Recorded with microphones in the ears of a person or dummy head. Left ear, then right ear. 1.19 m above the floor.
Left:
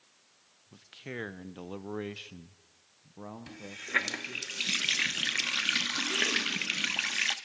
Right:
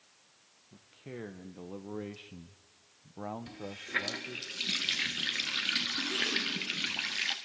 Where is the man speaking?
60° left (ahead or behind), 1.2 m; by 4.5 s 40° right (ahead or behind), 1.5 m.